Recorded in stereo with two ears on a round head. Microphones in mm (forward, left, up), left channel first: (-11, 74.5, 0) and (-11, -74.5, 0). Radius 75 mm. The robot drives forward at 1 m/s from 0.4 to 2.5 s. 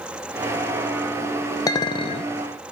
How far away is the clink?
About 0.8 m.